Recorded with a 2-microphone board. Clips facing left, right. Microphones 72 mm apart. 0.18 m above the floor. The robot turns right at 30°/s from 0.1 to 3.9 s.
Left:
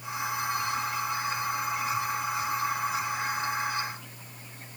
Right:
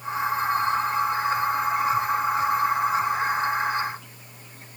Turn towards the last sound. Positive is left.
No sound to turn to.